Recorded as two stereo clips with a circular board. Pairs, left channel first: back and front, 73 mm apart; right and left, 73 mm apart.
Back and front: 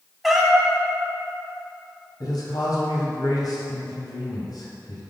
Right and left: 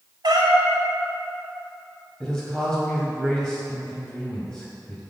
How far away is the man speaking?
About 2.5 m.